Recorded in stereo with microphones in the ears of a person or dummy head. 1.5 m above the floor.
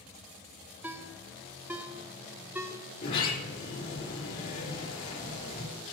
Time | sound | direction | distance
0.8 | a ringtone | 10° right (ahead or behind) | 0.7 m
3.0 | a sliding door | 65° left (ahead or behind) | 4 m